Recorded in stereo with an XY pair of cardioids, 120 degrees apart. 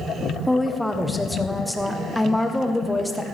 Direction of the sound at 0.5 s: Straight ahead.